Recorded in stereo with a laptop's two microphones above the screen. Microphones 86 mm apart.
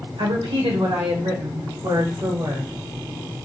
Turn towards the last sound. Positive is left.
turn(degrees=-60)  # may be behind; listen again after turning